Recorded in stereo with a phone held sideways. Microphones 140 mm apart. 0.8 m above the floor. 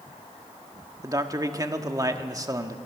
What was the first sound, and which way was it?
A man speaking, 25° right (ahead or behind).